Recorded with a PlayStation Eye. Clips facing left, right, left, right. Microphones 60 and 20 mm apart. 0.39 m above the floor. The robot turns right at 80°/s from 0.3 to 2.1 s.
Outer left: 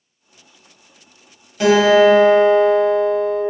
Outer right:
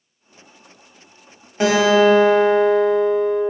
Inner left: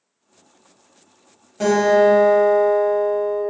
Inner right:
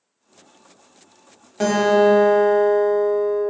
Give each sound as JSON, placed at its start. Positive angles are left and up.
{"t": 1.6, "sound": "a guitar", "azimuth_deg": -30, "distance_m": 0.9}